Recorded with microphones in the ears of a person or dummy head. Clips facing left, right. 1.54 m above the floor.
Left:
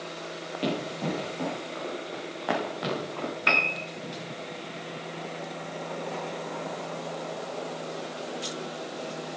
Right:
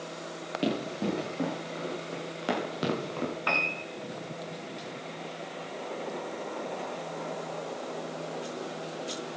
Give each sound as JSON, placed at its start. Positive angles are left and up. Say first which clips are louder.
{"t": 0.6, "sound": "running footsteps", "louder": "even", "side_deg": -25, "distance_m": 7.0}
{"t": 3.5, "sound": "a piano", "louder": "left 2 dB", "side_deg": 30, "distance_m": 1.9}